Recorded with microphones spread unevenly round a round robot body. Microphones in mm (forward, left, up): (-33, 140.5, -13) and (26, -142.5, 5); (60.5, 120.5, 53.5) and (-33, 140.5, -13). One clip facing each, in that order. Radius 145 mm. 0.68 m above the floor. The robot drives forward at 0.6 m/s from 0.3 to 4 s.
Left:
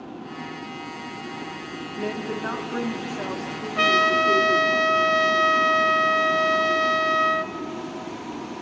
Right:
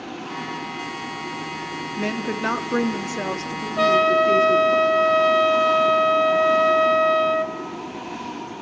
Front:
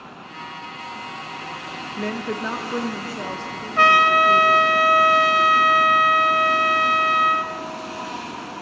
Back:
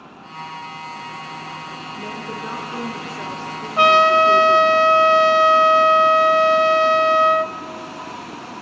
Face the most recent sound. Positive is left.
turn(degrees=175)